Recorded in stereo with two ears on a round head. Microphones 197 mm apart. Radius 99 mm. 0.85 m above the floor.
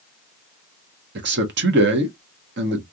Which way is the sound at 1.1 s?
50° right (ahead or behind).